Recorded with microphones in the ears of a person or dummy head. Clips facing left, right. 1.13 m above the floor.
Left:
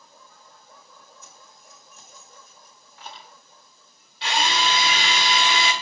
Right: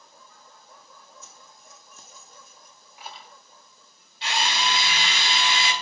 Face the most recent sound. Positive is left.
turn(degrees=45)  # may be behind; listen again after turning